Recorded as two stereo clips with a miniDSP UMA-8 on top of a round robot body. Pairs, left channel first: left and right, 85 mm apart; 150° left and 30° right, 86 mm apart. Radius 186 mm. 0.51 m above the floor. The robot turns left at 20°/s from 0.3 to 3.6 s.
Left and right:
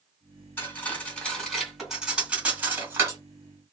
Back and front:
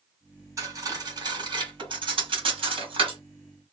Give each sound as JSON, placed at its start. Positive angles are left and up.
{"t": 0.6, "sound": "cutlery clinking", "azimuth_deg": 25, "distance_m": 2.5}